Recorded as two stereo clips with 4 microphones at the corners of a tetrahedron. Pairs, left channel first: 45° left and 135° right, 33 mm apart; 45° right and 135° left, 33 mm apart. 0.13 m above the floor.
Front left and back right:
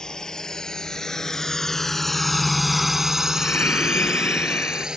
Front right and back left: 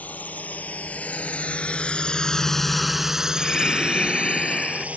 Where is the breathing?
15° left.